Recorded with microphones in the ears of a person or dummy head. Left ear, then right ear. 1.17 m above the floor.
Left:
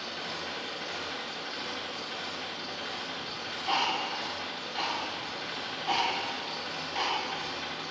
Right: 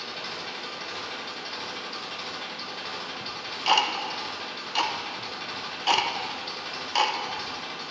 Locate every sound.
0.0 s an engine running: 20° right (ahead or behind), 1.2 m
3.2 s ticking: 60° right (ahead or behind), 0.6 m